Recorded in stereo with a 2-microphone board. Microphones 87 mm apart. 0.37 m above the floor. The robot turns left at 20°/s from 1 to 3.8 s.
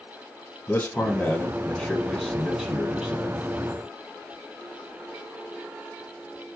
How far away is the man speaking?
About 2.5 m.